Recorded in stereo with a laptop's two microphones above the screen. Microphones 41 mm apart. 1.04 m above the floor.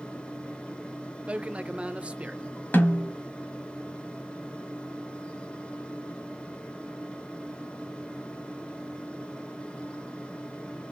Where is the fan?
25° left (ahead or behind), 1.0 m.